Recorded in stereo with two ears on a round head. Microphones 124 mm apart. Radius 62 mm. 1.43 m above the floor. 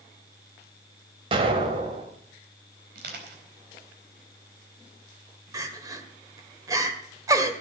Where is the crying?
25° right (ahead or behind), 1.8 m.